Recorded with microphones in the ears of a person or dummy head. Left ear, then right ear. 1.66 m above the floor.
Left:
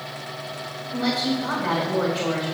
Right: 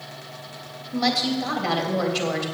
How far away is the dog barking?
No dog barking in this recording.